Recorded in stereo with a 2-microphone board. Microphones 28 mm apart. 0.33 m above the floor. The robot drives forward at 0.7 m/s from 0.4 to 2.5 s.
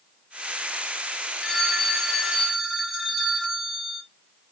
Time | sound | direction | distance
1.4 | a phone ringing | 15° left (ahead or behind) | 1.2 m